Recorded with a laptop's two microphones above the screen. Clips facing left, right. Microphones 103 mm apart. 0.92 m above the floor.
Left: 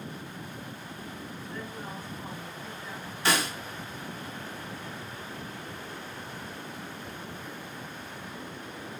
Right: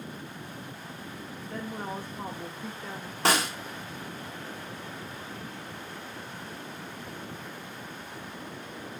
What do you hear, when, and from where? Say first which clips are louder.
1.5 s a woman speaking: right 6 dB; 55° right (ahead or behind), 1.0 m
3.2 s a snare drum: right 2 dB; 65° right (ahead or behind), 2.0 m